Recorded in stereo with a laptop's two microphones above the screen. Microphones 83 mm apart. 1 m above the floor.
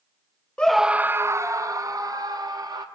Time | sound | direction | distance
0.6 | a scream | 15° left (ahead or behind) | 0.5 m